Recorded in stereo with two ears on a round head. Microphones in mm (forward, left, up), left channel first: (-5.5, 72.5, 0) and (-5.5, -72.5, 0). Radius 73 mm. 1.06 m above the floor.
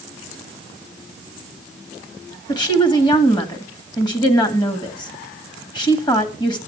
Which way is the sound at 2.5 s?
30° left (ahead or behind).